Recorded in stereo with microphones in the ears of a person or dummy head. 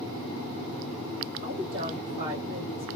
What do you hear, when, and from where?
1.4 s a woman speaking: 25° right (ahead or behind), 1.1 m